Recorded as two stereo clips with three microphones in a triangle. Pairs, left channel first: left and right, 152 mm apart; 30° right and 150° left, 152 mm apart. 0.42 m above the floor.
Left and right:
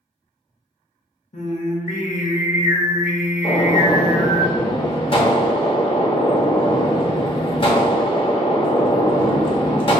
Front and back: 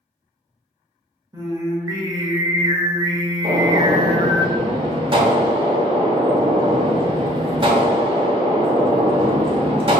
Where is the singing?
95° left, 0.6 m.